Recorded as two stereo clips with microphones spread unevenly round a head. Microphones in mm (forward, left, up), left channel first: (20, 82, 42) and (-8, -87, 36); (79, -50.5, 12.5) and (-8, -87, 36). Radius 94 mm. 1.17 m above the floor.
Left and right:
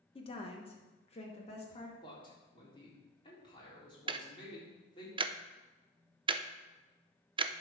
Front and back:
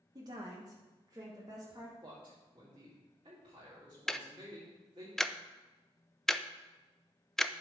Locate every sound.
0.1 s a woman speaking: 140° left, 1.4 m; by 1.9 s 135° left, 2.5 m
2.0 s a man speaking: 145° left, 3.5 m
4.1 s ticking: 50° right, 0.6 m